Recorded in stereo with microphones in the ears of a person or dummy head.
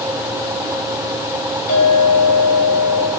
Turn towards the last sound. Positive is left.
turn(degrees=40)  # may be behind; listen again after turning